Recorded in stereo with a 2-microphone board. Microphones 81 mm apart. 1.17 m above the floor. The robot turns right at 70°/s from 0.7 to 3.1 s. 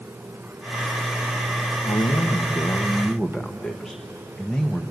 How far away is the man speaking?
About 1.1 m.